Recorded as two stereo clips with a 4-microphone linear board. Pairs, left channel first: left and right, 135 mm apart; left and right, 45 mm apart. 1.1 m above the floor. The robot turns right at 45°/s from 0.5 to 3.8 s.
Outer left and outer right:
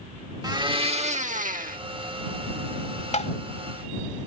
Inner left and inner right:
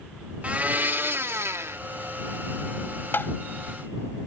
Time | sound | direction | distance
0.4 | a blender | 150° right | ?
3.1 | tapping | 55° left (ahead or behind) | ?